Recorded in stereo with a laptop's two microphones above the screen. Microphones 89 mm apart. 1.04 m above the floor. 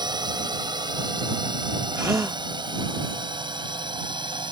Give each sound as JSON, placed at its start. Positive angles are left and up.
{"t": 0.0, "sound": "a drone", "side_deg": -55}
{"t": 1.9, "sound": "a gasp", "side_deg": -30}